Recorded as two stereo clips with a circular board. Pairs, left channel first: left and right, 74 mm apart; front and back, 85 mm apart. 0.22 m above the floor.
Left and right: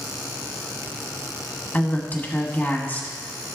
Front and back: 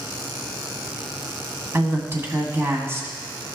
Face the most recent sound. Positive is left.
turn(degrees=140)